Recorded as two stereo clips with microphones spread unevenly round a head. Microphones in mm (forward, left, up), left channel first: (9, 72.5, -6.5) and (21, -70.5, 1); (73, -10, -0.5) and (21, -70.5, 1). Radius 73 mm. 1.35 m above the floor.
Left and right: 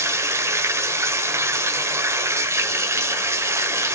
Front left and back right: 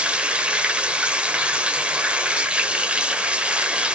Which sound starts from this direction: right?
Running water, at 0.0 s.